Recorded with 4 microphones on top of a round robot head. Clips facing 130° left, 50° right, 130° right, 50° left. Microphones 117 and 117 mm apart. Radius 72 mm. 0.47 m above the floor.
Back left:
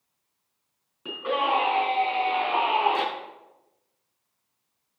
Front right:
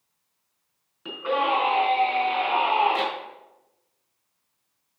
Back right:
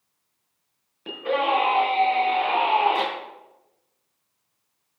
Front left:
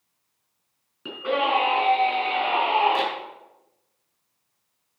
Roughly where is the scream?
Ahead left.